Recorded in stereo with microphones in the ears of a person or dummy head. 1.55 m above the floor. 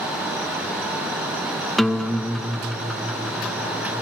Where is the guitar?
5° left (ahead or behind), 1.1 m.